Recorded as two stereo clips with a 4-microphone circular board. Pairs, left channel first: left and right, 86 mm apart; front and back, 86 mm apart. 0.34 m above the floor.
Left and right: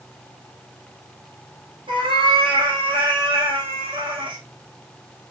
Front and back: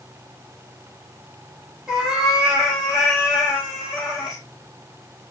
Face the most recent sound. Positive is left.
turn(degrees=-100)